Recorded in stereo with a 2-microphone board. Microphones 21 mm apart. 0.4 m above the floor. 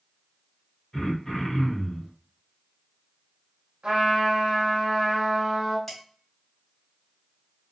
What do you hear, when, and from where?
0.9 s throat clearing: 40° left (ahead or behind), 1.8 m
3.8 s a trumpet: 55° right (ahead or behind), 1.5 m
5.9 s dishes clattering: 10° left (ahead or behind), 1.6 m